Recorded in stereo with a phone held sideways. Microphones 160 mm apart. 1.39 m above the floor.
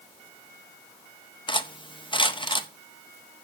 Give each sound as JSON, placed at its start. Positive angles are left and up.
{"t": 1.5, "sound": "cutlery clinking", "side_deg": 30, "distance_m": 0.7}